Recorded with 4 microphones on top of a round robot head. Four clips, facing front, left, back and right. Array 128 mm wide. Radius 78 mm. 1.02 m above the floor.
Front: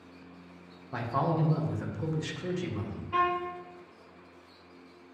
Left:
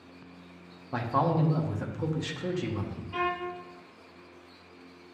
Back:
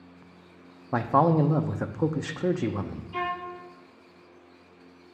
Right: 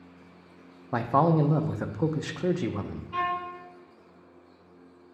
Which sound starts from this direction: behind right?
A man speaking, at 0.9 s.